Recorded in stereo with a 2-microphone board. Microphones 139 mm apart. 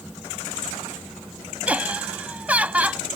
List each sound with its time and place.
1.7 s laughter: 10° right (ahead or behind)